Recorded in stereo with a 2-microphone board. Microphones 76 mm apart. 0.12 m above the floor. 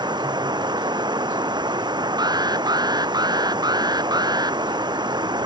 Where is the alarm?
65° right (ahead or behind).